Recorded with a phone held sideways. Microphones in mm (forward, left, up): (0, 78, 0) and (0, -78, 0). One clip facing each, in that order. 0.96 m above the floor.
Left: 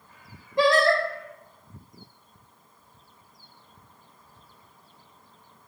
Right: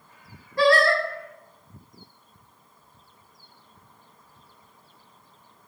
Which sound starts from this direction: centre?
Singing, at 0.6 s.